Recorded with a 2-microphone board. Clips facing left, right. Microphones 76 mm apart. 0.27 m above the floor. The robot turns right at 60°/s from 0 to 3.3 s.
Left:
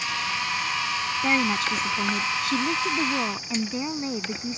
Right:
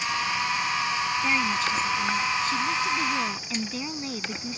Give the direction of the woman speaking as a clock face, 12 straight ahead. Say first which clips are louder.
Left 5 dB; 11 o'clock.